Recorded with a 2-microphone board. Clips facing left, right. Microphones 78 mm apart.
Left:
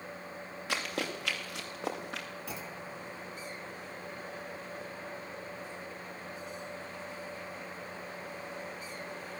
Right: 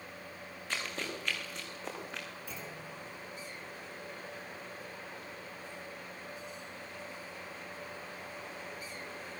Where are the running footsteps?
85° left, 6.5 m.